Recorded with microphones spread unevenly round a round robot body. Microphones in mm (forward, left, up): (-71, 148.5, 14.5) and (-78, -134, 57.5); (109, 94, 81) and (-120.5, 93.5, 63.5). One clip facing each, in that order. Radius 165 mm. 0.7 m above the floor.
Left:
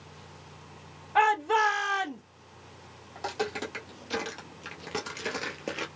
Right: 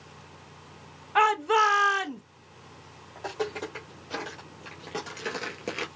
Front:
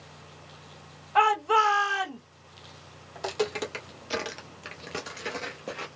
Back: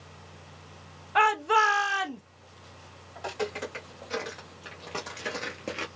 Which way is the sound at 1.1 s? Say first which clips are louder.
Right 2 dB, front 1 dB; 155° right.